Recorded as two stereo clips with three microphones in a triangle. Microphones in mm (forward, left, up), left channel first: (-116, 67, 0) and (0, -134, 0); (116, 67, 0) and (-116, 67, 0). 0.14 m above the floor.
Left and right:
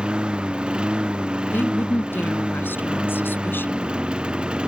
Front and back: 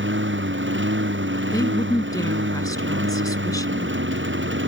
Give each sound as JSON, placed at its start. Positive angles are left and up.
{"t": 0.0, "sound": "a lawn mower", "azimuth_deg": -145}
{"t": 1.5, "sound": "a woman speaking", "azimuth_deg": 50}